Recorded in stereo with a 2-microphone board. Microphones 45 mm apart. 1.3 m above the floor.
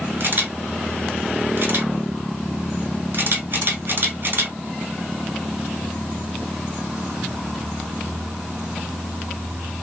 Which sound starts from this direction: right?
A camera shutter, at 0.2 s.